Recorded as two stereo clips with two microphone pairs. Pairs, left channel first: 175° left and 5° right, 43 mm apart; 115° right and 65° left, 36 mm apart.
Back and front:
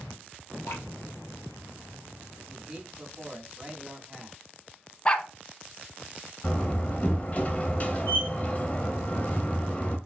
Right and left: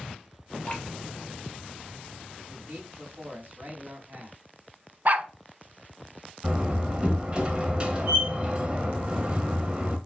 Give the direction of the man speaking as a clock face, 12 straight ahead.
10 o'clock.